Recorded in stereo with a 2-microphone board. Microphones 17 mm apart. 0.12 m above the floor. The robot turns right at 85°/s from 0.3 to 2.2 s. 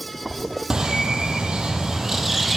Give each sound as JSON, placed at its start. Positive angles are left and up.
{"t": 0.7, "sound": "a bird", "azimuth_deg": -140, "distance_m": 0.6}